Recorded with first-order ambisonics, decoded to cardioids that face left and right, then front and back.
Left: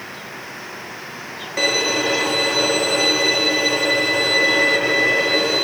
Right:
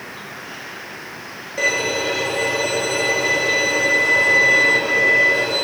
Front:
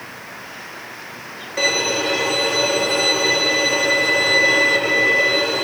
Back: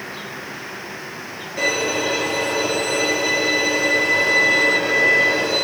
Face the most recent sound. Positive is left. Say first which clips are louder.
# left 1 dB, front 2 dB
turn(degrees=75)